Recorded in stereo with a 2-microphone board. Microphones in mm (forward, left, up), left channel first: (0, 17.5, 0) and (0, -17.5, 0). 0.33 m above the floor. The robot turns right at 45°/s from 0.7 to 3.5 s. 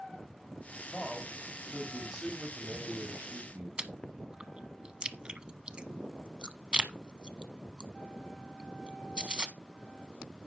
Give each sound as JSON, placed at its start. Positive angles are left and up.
{"t": 0.9, "sound": "a man speaking", "azimuth_deg": 150, "distance_m": 1.8}
{"t": 3.8, "sound": "chewing", "side_deg": -30, "distance_m": 0.7}